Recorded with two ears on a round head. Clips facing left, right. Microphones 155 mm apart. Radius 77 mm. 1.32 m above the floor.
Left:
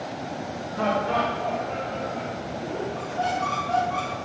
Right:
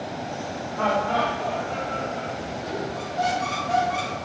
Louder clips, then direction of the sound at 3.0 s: Right 2 dB; 15° right (ahead or behind).